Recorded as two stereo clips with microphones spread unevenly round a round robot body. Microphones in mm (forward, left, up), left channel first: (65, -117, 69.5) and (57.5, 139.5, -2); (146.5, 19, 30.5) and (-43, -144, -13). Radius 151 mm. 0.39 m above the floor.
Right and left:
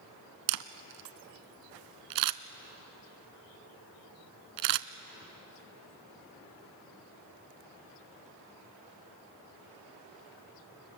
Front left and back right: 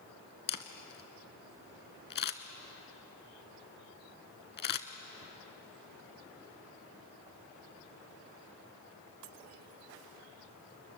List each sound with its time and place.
0.5 s a camera shutter: 100° left, 0.8 m